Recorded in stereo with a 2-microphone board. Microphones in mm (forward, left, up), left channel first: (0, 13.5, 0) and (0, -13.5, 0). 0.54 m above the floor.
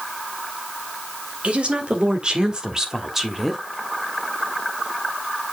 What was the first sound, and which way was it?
A woman speaking, 55° right (ahead or behind).